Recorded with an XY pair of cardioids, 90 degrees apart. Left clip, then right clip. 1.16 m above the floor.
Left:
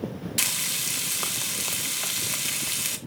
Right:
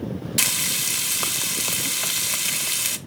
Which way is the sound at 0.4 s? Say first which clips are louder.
Right 4 dB; 20° right.